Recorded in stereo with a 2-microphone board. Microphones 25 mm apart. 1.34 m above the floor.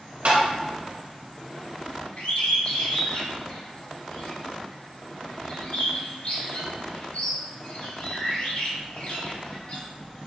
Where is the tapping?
70° right (ahead or behind), 1.8 m.